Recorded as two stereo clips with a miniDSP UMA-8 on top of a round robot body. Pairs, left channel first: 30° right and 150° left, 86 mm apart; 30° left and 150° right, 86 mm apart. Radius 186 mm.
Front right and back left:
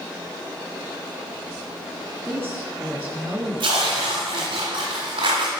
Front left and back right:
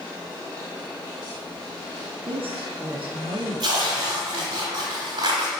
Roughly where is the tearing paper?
Behind.